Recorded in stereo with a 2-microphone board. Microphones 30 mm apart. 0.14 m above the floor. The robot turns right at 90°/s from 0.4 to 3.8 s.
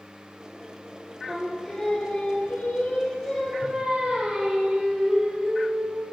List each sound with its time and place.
1.3 s singing: 15° right, 1.5 m; by 6.0 s 145° right, 1.5 m